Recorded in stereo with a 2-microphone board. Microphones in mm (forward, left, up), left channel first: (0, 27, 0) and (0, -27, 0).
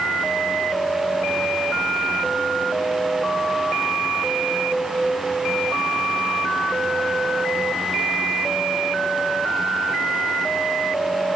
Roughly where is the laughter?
No laughter in this recording.